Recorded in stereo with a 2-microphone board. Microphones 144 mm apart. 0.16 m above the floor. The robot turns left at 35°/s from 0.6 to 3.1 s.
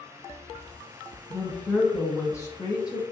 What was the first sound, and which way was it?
A woman speaking, centre (ahead or behind).